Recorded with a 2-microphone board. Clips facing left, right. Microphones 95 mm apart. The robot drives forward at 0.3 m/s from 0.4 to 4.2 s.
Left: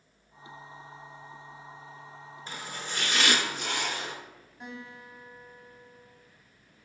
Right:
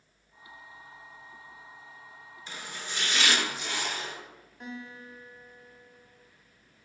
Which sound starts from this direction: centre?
A guitar, at 4.6 s.